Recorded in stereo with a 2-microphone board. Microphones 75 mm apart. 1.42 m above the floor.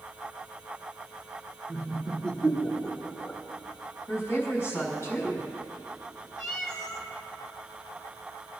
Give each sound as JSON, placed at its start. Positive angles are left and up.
{"t": 1.7, "sound": "laughter", "side_deg": 10, "distance_m": 3.5}
{"t": 4.1, "sound": "a woman speaking", "side_deg": 40, "distance_m": 5.5}
{"t": 6.4, "sound": "a cat meowing", "side_deg": 45, "distance_m": 1.4}